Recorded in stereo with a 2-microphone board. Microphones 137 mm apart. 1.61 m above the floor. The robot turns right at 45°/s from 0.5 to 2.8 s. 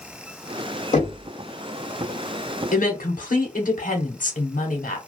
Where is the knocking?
65° left (ahead or behind), 1.7 m.